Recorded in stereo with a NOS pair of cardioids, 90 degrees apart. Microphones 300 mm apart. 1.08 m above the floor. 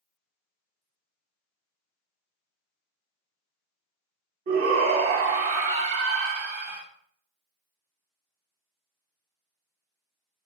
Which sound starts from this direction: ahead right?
A shout, at 4.5 s.